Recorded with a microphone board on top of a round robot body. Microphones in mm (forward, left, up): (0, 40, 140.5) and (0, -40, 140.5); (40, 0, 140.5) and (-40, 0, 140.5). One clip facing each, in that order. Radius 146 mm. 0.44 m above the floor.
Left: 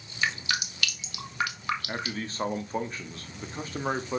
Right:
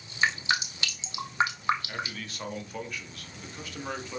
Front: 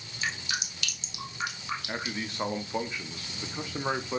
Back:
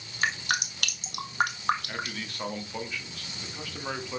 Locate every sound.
0.2 s dripping: 150° right, 1.6 m
1.9 s a man speaking: 55° left, 1.3 m